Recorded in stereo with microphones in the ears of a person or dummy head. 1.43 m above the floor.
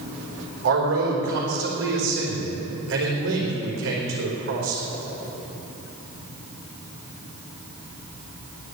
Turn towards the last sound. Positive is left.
turn(degrees=-65)  # may be behind; listen again after turning